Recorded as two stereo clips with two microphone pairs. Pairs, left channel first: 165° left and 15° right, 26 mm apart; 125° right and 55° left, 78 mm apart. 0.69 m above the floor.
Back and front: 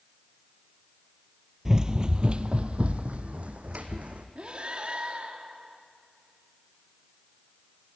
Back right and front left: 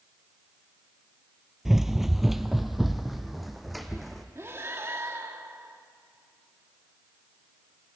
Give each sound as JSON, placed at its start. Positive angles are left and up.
{"t": 1.6, "sound": "running footsteps", "azimuth_deg": -30, "distance_m": 0.7}
{"t": 4.3, "sound": "breathing", "azimuth_deg": 5, "distance_m": 1.3}